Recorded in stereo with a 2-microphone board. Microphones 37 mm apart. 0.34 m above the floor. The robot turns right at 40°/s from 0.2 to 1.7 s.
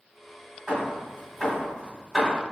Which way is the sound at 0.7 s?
35° right (ahead or behind).